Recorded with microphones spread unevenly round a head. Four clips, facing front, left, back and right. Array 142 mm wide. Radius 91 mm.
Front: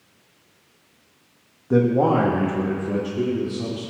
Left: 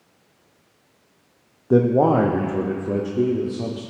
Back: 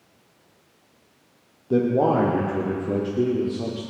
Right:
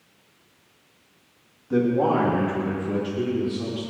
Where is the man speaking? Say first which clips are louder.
Left 5 dB, front 2 dB; 90° left, 1.3 m; by 3.8 s 120° left, 3 m.